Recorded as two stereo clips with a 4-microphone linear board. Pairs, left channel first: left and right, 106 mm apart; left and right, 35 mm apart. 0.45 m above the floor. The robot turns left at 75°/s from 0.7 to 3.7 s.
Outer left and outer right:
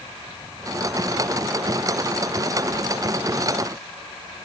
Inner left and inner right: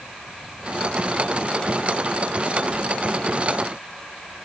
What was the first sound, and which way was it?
Only background noise.